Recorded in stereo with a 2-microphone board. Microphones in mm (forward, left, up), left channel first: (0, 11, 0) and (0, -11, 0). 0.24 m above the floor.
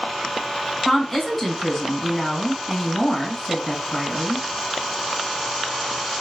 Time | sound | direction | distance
0.8 | a woman speaking | 5° left (ahead or behind) | 1.8 m